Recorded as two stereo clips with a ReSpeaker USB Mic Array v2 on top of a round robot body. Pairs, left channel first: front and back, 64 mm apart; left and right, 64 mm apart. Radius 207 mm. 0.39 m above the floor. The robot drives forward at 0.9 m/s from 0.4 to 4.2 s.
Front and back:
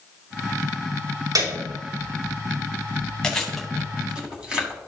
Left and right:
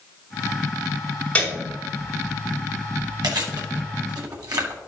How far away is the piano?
About 5 m.